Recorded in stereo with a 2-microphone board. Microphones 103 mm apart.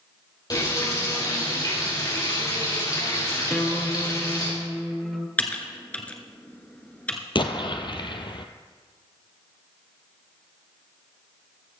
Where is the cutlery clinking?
I don't hear cutlery clinking.